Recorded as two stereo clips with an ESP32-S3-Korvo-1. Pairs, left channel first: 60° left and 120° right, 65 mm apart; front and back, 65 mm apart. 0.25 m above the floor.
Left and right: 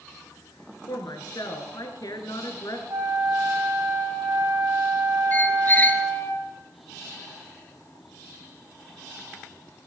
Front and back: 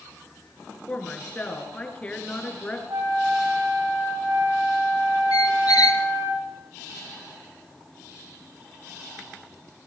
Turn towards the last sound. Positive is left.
turn(degrees=0)